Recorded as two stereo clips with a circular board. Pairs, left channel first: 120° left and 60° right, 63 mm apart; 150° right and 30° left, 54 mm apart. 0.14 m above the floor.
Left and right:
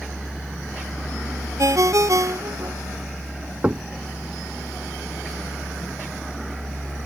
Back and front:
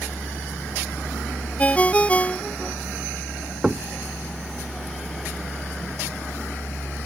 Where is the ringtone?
85° right.